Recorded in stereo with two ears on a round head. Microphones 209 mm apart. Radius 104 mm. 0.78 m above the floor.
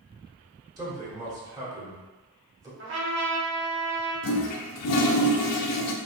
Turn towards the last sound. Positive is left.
turn(degrees=70)  # may be behind; listen again after turning